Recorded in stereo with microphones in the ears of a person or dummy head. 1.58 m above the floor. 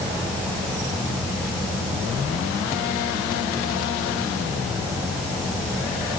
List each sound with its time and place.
0.0 s an insect: 5° left (ahead or behind), 6.5 m